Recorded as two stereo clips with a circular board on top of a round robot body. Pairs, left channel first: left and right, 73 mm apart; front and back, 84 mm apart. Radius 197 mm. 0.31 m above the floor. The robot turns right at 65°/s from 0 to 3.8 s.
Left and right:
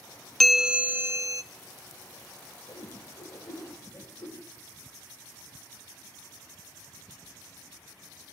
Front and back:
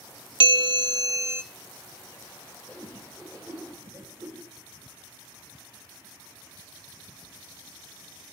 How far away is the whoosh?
About 5.5 m.